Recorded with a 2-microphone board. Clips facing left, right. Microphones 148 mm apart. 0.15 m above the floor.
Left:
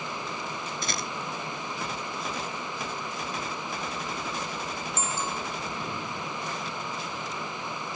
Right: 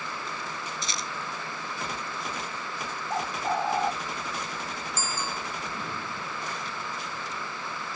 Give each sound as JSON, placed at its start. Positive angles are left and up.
{"t": 0.8, "sound": "a rattle", "side_deg": 60}
{"t": 3.1, "sound": "a bird", "side_deg": -85}
{"t": 5.0, "sound": "a bicycle bell", "side_deg": 25}